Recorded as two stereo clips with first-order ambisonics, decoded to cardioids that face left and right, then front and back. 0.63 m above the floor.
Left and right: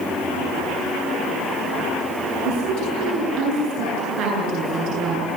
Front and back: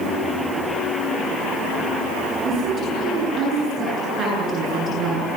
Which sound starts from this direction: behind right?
A woman speaking, at 2.5 s.